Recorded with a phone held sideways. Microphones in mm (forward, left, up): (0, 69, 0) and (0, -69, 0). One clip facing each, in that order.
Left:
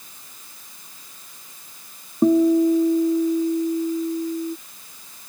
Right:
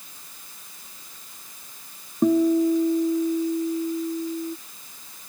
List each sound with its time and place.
2.2 s a guitar: 15° left (ahead or behind)